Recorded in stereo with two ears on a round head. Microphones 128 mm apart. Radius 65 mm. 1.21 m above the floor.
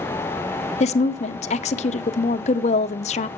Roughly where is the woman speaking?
Left.